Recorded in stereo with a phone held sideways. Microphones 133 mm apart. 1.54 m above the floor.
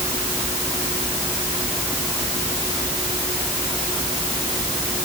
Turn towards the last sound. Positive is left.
No sound to turn to.